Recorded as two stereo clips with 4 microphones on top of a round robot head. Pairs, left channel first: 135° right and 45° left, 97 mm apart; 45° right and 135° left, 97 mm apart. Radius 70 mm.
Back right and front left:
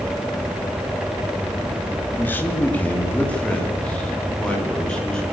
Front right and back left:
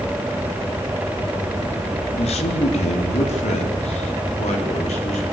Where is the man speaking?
65° right, 2.5 m; by 5.2 s 55° right, 5.5 m.